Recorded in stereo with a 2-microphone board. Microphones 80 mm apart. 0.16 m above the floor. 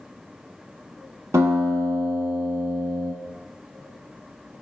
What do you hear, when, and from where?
1.3 s a guitar: 40° right (ahead or behind), 0.7 m